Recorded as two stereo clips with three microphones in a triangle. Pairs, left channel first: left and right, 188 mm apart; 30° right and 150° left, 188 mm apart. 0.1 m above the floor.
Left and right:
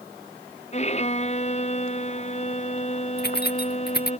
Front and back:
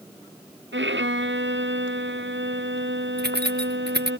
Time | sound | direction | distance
0.7 | a violin | 145° left | ?
3.2 | keys jangling | 120° left | ?